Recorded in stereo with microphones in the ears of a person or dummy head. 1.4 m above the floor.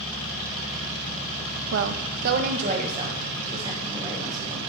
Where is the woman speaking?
70° right (ahead or behind), 0.6 m; by 4.6 s 20° right (ahead or behind), 2.5 m.